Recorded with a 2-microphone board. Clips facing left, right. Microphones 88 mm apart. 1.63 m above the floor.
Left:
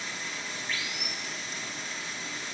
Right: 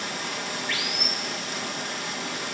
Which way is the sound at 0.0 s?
65° right (ahead or behind).